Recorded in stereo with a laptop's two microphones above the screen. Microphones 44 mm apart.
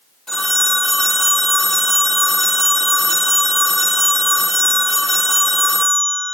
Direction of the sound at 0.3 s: 5° left (ahead or behind).